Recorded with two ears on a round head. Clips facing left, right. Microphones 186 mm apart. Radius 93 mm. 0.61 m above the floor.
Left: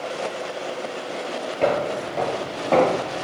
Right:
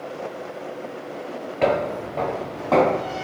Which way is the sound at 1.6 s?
15° right (ahead or behind).